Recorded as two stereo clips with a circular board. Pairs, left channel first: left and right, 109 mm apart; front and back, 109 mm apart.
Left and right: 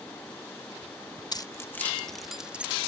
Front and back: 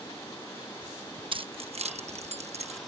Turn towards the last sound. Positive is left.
turn(degrees=-165)